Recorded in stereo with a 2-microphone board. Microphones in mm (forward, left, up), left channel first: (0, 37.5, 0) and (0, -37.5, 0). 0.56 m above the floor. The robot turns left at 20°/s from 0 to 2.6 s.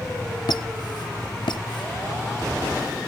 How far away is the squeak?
About 0.6 m.